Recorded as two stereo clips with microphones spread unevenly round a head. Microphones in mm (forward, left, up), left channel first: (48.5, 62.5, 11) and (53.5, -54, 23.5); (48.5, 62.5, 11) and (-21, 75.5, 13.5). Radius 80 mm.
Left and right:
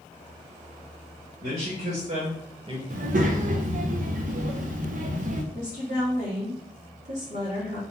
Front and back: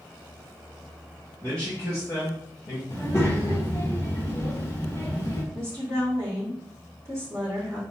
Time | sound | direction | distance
1.4 | a man speaking | 80° right | 1.9 m
2.9 | a child speaking | 85° right | 0.7 m
5.5 | a woman speaking | 75° right | 2.5 m